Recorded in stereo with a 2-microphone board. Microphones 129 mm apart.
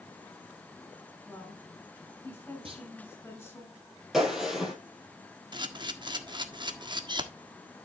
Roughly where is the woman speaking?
Centre.